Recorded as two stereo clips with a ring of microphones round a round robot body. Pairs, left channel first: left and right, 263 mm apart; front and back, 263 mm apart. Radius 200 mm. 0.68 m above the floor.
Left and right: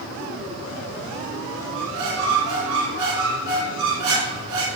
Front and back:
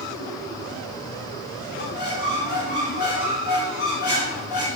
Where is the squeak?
70° right, 1.6 m.